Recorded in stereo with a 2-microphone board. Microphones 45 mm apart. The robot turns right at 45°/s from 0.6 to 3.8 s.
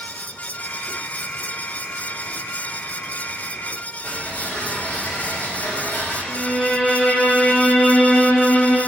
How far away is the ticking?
About 2.5 m.